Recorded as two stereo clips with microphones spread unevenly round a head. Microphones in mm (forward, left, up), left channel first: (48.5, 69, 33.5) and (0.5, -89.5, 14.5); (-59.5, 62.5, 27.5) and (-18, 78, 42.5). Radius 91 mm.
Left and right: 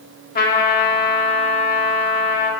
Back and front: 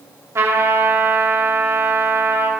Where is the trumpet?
35° left, 2.5 m.